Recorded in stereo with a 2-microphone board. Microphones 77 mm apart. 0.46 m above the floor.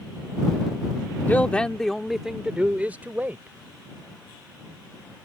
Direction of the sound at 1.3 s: 20° left (ahead or behind).